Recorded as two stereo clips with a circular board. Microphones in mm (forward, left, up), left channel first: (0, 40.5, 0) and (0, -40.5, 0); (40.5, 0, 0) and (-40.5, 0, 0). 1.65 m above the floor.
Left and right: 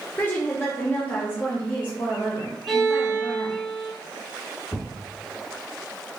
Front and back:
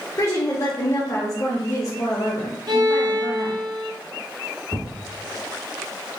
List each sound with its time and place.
0.2 s a woman speaking: 35° left, 0.6 m
2.7 s a violin: straight behind, 0.7 m
4.7 s a thud: 120° left, 1.6 m